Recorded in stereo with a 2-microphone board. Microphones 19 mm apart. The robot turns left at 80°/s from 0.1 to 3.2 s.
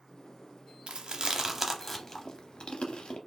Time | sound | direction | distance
0.9 | chewing | 70° right (ahead or behind) | 0.6 m